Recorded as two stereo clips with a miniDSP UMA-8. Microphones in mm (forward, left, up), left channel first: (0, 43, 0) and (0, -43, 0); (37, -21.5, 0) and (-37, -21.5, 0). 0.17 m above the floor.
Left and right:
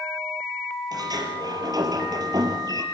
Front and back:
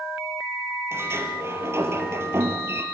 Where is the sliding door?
125° right, 4 m.